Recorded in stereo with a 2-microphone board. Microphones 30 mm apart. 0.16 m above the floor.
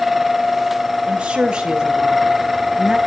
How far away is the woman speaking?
About 2.5 m.